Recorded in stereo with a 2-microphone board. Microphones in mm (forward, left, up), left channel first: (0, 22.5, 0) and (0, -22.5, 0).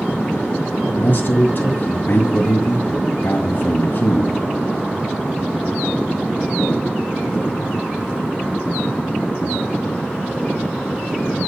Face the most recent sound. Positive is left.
turn(degrees=50)  # may be behind; listen again after turning